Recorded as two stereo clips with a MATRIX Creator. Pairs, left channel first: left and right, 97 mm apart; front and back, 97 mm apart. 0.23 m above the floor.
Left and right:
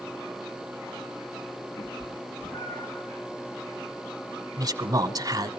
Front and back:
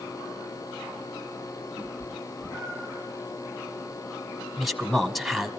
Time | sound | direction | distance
1.8 | a cat meowing | 85° left | 6 m
4.6 | a man speaking | 90° right | 1.6 m